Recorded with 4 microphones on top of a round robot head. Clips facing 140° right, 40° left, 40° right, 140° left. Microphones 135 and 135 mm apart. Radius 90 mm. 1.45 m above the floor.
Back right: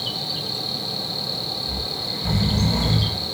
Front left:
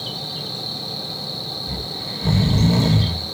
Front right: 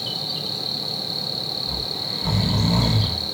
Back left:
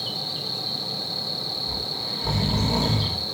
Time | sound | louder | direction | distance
0.0 | an insect | even, front right 2 dB | 55° right | 1.7 m
1.7 | snoring | even, front right 1 dB | 50° left | 0.8 m